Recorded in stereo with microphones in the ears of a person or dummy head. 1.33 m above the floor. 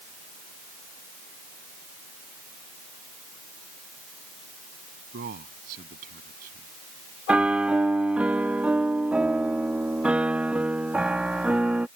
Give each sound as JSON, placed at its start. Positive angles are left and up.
{"t": 5.1, "sound": "a man speaking", "side_deg": -50}
{"t": 7.3, "sound": "a piano", "side_deg": -5}